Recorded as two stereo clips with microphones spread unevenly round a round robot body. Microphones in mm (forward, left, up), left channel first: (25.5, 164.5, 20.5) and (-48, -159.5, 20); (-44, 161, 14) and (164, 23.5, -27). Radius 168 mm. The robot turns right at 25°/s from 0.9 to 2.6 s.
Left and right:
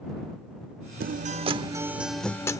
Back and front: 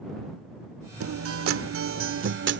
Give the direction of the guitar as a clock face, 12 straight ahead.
1 o'clock.